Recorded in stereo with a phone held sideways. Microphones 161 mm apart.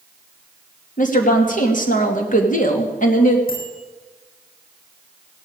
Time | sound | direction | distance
1.0 | a woman speaking | 55° left (ahead or behind) | 2.5 m
3.5 | a bicycle bell | 65° left (ahead or behind) | 9.5 m